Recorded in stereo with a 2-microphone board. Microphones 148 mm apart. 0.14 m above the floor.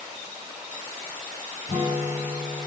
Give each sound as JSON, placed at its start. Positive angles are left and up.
{"t": 1.7, "sound": "a guitar", "side_deg": 60, "distance_m": 3.5}